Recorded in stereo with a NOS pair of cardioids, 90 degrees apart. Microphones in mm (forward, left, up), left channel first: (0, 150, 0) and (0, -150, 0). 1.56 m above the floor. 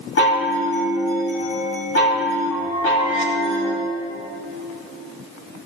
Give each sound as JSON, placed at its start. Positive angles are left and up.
{"t": 0.2, "sound": "a chime", "azimuth_deg": 45, "distance_m": 3.0}